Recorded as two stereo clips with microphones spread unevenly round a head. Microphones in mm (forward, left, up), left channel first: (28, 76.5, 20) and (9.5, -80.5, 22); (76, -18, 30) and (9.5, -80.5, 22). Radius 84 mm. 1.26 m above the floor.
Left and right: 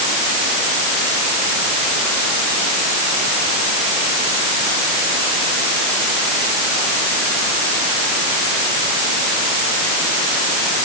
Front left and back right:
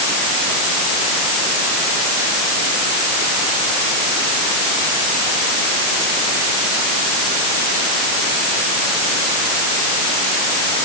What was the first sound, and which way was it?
Only background noise.